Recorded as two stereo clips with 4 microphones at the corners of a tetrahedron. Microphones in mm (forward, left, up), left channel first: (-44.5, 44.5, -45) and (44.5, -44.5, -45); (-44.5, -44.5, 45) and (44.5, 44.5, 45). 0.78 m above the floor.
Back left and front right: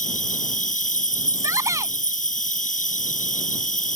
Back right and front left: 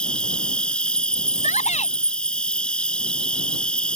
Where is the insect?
145° left.